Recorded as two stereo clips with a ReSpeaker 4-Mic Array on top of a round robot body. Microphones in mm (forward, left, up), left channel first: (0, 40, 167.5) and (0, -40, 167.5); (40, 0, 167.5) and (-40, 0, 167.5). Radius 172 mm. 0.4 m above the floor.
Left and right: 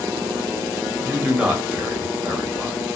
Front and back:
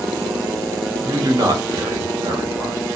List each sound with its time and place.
1.0 s a man speaking: 165° right, 1.7 m